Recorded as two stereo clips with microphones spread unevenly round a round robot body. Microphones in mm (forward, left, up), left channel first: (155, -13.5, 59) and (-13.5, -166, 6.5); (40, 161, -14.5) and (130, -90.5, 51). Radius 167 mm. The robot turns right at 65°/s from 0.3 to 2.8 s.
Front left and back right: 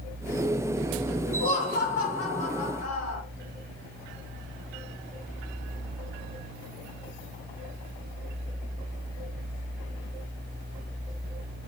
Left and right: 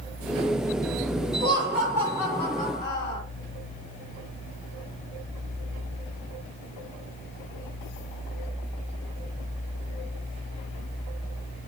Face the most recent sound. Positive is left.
turn(degrees=70)